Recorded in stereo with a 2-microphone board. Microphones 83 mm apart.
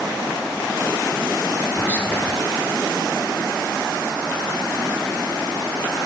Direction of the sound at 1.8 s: 15° left (ahead or behind).